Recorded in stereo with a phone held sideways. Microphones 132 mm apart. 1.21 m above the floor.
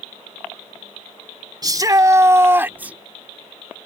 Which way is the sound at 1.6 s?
30° right (ahead or behind).